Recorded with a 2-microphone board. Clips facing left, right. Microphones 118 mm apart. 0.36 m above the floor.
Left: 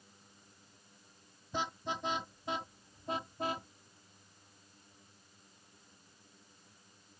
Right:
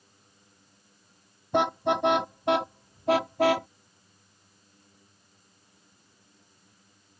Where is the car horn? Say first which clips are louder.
Right 14 dB; 65° right (ahead or behind); by 3.7 s 80° right.